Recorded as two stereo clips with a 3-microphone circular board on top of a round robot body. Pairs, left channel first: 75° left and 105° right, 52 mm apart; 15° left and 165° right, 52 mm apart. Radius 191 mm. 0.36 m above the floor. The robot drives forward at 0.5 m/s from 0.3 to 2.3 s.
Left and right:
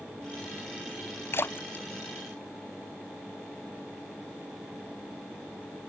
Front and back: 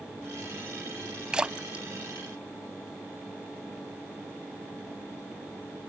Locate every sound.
1.3 s a splash: 120° left; by 3.0 s 135° left